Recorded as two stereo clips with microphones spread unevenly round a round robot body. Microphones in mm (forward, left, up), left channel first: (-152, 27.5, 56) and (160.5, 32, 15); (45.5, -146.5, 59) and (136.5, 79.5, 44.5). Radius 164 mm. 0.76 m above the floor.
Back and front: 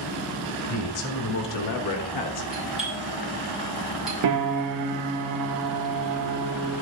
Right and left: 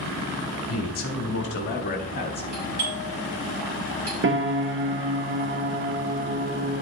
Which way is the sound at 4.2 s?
25° left.